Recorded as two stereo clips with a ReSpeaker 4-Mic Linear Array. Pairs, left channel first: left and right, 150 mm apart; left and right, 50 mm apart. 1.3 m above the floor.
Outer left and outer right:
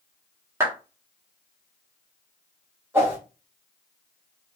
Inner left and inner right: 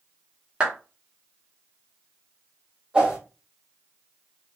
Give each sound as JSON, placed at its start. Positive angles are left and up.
{"t": 0.6, "sound": "a clap", "side_deg": -15, "distance_m": 1.8}
{"t": 2.9, "sound": "a whoosh", "side_deg": -15, "distance_m": 2.5}